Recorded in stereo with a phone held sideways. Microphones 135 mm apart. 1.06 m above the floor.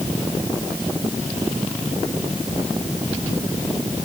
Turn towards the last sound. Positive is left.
No sound to turn to.